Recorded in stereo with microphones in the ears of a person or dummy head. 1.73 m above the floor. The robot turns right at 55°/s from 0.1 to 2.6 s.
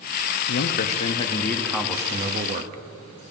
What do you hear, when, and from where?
0.5 s a man speaking: 110° left, 0.6 m; by 3.2 s 130° right, 0.6 m